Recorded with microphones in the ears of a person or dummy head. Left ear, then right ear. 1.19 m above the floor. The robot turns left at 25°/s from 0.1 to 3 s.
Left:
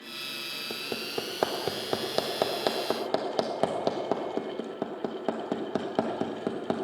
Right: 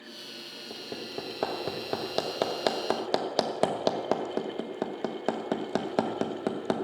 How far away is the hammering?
About 0.9 m.